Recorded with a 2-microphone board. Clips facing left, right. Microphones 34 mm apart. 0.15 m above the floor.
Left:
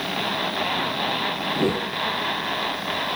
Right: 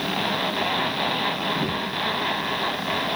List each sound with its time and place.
1.5 s a whoosh: 70° left (ahead or behind), 1.0 m